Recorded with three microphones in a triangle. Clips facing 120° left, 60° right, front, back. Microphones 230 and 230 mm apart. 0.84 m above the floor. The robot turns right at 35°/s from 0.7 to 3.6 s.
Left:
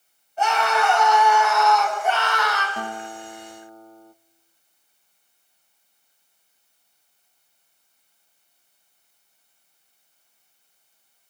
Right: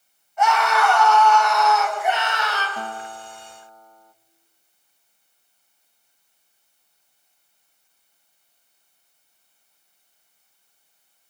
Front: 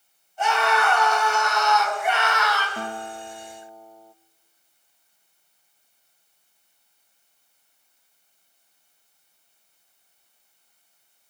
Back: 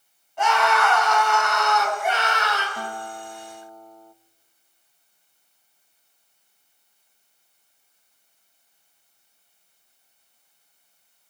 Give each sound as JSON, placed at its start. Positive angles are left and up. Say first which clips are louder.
{"t": 0.4, "sound": "a scream", "louder": "right 2 dB, back 1 dB", "azimuth_deg": 175, "distance_m": 7.0}
{"t": 2.8, "sound": "a guitar", "louder": "left 1 dB, front 1 dB", "azimuth_deg": 45, "distance_m": 0.7}